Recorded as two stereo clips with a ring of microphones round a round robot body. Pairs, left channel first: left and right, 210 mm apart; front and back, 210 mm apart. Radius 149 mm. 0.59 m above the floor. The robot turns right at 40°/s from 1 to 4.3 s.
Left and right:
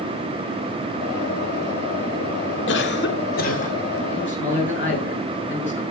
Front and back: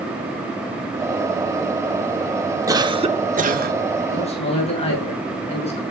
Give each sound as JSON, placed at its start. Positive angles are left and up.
{"t": 2.7, "sound": "a cough", "azimuth_deg": 110, "distance_m": 1.9}
{"t": 4.1, "sound": "a man speaking", "azimuth_deg": 55, "distance_m": 7.0}